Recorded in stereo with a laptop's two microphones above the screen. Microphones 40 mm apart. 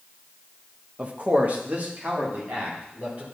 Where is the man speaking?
35° right (ahead or behind), 0.7 m; by 3.2 s 45° right (ahead or behind), 3 m.